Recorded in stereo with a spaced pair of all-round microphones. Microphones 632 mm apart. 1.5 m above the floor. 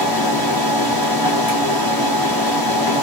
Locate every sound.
0.0 s a machine running: 35° left (ahead or behind), 1.0 m